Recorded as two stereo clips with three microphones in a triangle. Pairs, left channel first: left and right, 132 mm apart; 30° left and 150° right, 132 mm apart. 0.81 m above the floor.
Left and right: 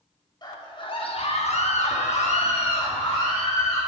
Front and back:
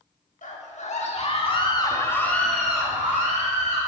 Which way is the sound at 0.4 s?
35° left.